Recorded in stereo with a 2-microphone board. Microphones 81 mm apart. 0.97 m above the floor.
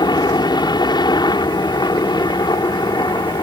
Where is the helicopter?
65° left (ahead or behind).